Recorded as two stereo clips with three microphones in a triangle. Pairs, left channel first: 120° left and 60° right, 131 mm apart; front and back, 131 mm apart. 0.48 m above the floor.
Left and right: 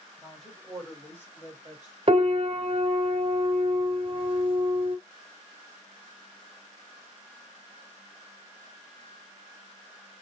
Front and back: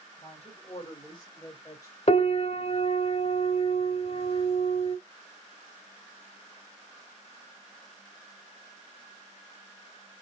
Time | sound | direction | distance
0.2 | a woman speaking | 30° left | 3 m
2.1 | a piano | 25° right | 0.7 m